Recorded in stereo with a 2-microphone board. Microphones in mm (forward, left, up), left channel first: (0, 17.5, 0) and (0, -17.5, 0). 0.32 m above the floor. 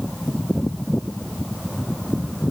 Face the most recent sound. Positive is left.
No sound to turn to.